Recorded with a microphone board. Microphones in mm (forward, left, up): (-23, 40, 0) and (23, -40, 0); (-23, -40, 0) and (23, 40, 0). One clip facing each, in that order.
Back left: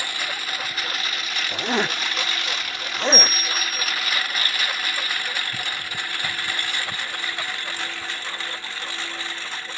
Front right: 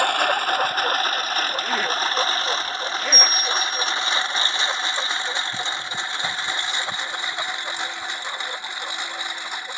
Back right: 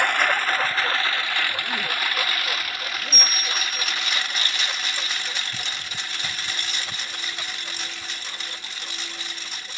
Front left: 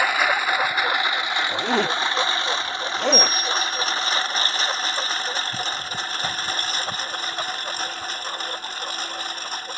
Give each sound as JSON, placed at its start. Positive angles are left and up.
{"t": 0.0, "sound": "a lawn mower", "azimuth_deg": -25}
{"t": 1.5, "sound": "a zipper", "azimuth_deg": 55}
{"t": 3.1, "sound": "a bell", "azimuth_deg": 30}